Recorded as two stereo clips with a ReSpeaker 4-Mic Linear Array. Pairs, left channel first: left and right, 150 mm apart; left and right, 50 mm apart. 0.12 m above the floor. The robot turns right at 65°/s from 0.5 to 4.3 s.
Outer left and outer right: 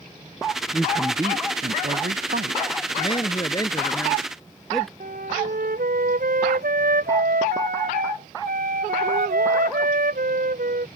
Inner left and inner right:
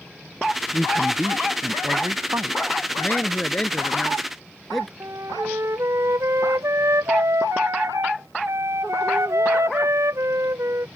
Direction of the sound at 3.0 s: 90° left.